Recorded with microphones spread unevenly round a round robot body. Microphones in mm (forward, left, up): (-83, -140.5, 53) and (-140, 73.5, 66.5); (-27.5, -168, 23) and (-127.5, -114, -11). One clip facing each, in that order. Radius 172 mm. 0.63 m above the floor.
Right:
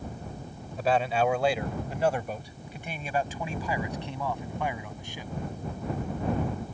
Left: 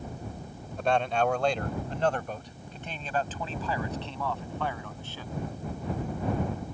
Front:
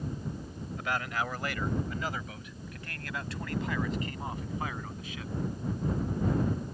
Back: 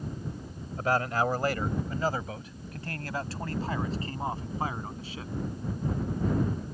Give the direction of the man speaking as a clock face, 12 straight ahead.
5 o'clock.